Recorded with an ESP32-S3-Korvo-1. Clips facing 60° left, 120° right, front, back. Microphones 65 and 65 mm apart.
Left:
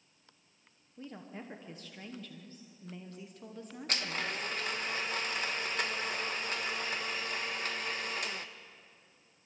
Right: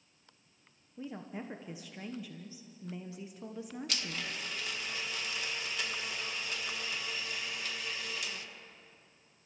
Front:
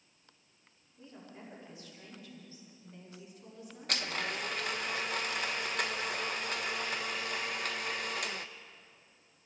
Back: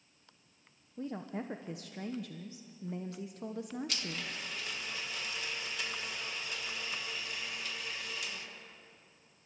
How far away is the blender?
About 0.9 m.